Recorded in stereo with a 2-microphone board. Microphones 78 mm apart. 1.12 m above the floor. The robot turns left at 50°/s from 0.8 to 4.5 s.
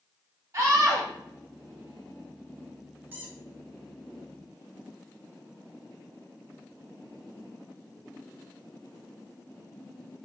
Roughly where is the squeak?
Right.